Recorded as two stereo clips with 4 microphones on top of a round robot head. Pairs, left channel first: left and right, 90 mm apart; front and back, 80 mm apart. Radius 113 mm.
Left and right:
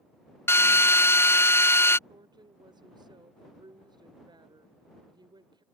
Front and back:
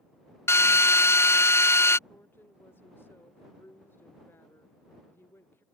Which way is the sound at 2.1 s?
60° right.